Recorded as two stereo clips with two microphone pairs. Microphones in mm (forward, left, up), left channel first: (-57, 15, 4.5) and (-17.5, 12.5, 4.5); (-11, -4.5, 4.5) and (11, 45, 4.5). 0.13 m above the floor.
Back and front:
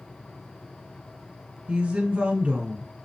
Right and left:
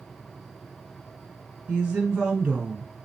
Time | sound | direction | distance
1.7 | a woman speaking | 5° left | 1.9 m